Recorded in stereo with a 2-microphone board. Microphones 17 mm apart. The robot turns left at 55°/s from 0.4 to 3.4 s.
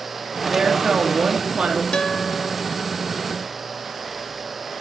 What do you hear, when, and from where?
0.5 s a woman speaking: 50° right, 3 m; by 1.8 s 125° right, 3 m
1.9 s a guitar: 85° left, 1.1 m; by 2.6 s 45° left, 1.1 m